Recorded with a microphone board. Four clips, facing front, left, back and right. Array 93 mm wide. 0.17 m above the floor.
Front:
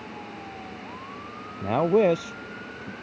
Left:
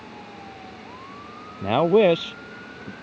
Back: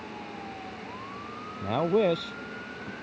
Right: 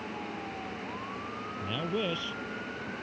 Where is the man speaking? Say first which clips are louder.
Left 17 dB, front 4 dB; 75° left.